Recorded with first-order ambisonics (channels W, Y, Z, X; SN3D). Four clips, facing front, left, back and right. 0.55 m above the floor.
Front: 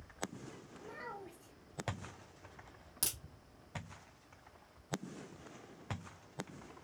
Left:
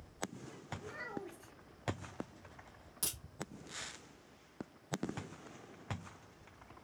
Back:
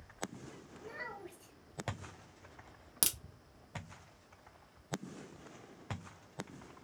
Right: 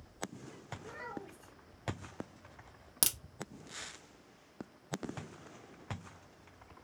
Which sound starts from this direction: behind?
A child speaking, at 0.8 s.